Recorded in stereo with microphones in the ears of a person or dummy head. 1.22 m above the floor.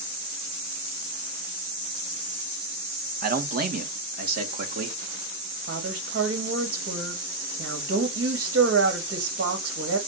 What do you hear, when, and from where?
3.2 s a man speaking: 45° right (ahead or behind), 1.3 m
5.7 s a woman speaking: 65° right (ahead or behind), 2.5 m